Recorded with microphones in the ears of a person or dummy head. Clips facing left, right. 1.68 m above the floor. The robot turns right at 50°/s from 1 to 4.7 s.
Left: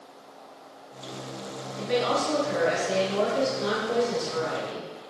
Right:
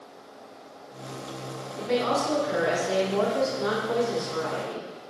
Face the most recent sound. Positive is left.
turn(degrees=65)